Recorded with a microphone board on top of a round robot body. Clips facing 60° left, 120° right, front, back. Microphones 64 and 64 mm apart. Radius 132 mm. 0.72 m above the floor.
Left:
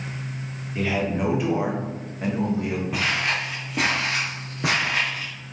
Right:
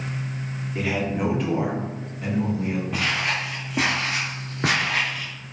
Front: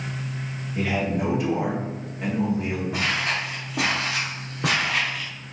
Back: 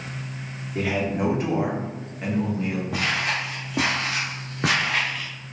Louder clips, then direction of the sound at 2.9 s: Left 2 dB, even; 145° left.